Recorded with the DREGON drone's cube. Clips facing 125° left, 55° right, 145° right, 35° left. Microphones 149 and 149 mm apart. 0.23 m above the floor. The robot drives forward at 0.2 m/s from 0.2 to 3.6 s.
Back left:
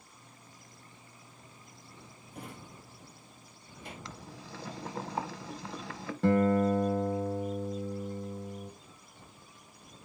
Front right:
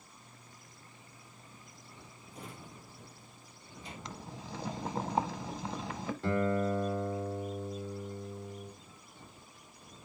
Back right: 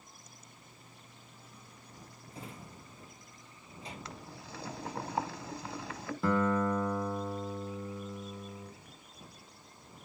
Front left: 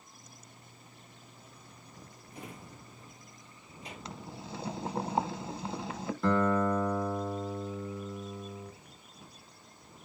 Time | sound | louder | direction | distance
2.3 | a drawer | back left 2 dB, front left 1 dB | 150° left | 2 m
4.0 | boiling | front right 2 dB, front left 4 dB | 10° right | 0.6 m
6.2 | a guitar | back left 6 dB, front left 2 dB | 130° left | 1.0 m